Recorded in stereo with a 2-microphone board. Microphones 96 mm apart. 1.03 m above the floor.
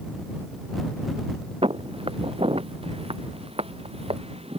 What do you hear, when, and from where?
1.6 s footsteps: 70° right (ahead or behind); by 4.6 s 80° right